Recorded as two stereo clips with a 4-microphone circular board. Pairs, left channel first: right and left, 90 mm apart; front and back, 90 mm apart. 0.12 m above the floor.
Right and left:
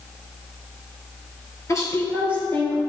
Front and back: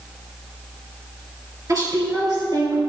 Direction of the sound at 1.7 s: 135° right.